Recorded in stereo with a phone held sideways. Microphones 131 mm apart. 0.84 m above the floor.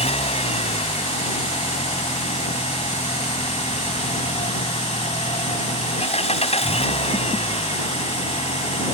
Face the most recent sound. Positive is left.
turn(degrees=50)  # may be behind; listen again after turning